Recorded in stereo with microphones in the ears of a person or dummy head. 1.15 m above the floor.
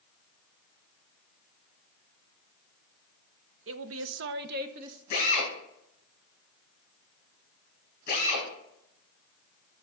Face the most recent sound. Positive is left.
turn(degrees=40)  # may be behind; listen again after turning